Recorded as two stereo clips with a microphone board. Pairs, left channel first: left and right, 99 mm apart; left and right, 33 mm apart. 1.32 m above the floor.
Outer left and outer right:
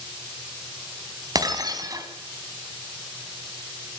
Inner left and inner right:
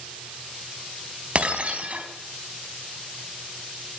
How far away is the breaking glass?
About 3.5 m.